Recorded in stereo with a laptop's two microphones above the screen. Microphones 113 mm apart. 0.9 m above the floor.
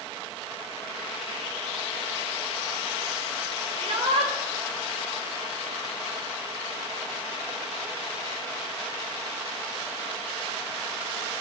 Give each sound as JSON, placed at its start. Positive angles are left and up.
{"t": 3.8, "sound": "a shout", "side_deg": -65, "distance_m": 4.5}